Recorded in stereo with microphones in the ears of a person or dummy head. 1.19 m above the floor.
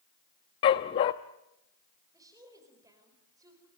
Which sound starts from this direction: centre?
A woman speaking, at 2.1 s.